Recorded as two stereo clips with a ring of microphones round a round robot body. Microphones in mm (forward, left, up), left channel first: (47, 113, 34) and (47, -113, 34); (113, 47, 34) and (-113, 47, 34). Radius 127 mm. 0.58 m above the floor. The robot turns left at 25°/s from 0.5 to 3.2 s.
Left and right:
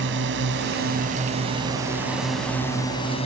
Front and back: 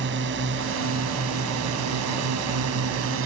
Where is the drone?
135° right; by 3.2 s 160° left.